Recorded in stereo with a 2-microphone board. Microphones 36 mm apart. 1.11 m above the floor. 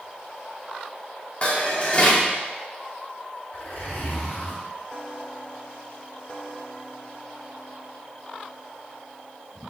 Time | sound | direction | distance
1.4 | dishes clattering | 35° left (ahead or behind) | 1.5 m
3.5 | a zipper | 55° left (ahead or behind) | 3.5 m